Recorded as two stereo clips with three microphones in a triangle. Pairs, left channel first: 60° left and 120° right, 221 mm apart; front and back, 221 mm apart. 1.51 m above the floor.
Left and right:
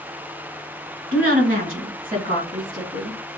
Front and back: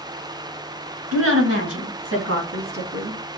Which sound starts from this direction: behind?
A woman speaking, at 1.1 s.